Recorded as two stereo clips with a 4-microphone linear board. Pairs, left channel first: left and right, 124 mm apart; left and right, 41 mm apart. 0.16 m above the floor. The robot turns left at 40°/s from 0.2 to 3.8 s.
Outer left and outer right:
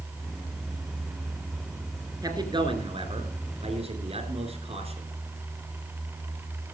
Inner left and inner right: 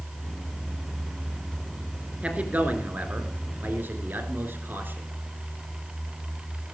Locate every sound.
2.2 s a man speaking: 40° right, 3 m; by 5.1 s 100° right, 3 m